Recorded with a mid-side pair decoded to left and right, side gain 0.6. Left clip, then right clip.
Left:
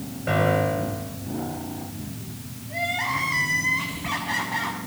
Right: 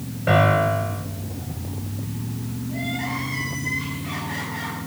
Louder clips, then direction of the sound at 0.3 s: Right 4 dB; 30° right.